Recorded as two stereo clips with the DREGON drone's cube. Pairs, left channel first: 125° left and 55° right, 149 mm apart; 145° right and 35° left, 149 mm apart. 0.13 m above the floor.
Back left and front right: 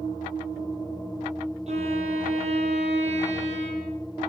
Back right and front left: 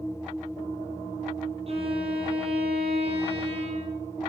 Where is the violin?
15° right, 6.5 m.